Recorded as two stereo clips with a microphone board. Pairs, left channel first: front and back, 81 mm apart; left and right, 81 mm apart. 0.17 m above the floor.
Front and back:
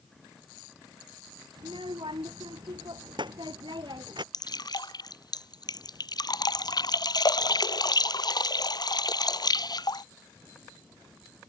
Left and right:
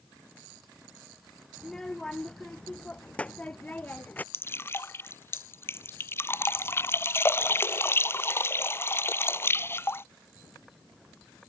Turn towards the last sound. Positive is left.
turn(degrees=30)